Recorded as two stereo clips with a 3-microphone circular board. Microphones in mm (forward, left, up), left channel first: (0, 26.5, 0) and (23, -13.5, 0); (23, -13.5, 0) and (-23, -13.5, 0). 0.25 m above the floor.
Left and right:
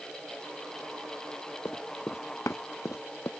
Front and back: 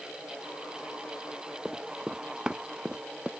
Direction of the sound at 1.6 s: 105° left.